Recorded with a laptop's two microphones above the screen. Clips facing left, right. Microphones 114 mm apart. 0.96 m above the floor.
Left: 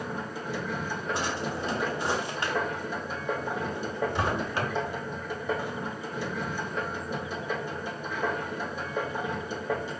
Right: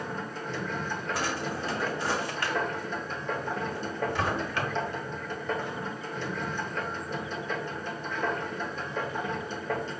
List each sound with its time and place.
0.0 s a machine running: 10° left (ahead or behind), 1.0 m
1.1 s a drawer: 20° left (ahead or behind), 1.2 m